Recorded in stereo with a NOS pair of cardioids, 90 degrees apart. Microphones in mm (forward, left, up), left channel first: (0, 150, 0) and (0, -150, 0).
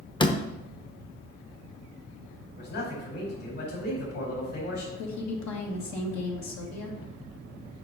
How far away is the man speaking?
About 4 m.